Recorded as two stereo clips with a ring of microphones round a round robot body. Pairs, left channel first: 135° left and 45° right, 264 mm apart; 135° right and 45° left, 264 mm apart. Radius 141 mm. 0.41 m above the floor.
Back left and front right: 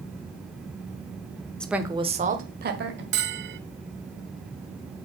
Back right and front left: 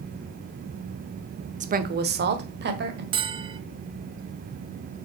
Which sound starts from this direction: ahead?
A bell, at 3.1 s.